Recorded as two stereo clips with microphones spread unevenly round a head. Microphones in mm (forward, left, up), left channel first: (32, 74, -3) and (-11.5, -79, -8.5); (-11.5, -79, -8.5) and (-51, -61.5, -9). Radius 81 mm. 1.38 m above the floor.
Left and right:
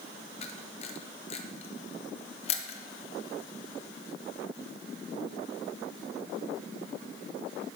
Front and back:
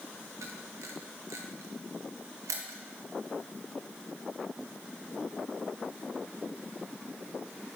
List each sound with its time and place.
0.4 s a camera shutter: 130° left, 0.7 m